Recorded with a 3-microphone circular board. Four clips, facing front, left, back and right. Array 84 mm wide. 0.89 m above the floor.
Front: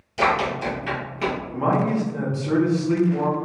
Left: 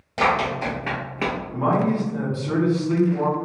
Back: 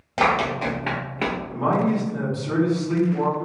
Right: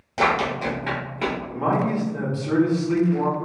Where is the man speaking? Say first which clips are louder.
Left 2 dB, even; 10° right, 0.8 m.